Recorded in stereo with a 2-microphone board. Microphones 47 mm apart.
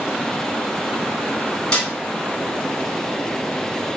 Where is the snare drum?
20° left (ahead or behind), 1.3 m.